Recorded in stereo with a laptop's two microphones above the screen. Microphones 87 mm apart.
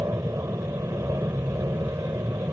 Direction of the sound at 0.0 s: 35° right (ahead or behind).